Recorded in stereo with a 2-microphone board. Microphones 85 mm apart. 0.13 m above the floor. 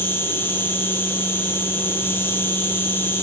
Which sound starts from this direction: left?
An insect, at 0.0 s.